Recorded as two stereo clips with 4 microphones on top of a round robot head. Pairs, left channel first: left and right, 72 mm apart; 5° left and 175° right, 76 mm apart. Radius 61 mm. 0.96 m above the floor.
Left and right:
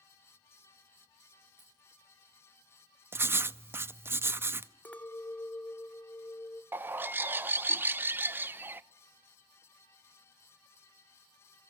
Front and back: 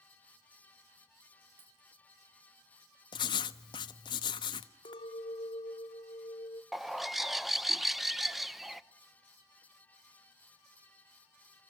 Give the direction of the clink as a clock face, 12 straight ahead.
11 o'clock.